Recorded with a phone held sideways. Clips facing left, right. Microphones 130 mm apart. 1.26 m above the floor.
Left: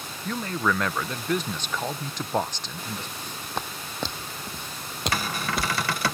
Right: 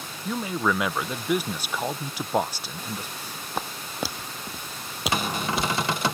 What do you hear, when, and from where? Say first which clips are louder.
0.2 s a man speaking: right 1 dB; 10° right (ahead or behind)
3.2 s footsteps: right 1 dB; 10° right (ahead or behind); by 6.1 s centre (ahead or behind)
5.1 s a cupboard door: right 3 dB; 20° right (ahead or behind)